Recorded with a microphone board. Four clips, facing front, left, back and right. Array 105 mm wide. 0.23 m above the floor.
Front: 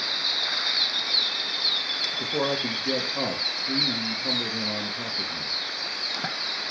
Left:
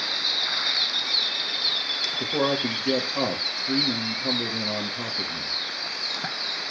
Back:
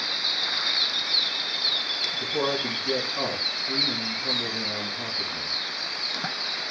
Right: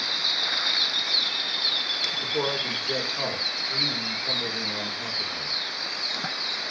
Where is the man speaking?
60° left, 4 m.